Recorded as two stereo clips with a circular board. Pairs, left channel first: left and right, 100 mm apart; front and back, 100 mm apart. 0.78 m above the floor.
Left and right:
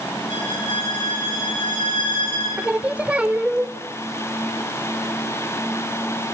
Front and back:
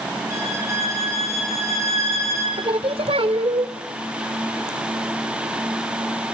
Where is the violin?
120° left, 6.5 m.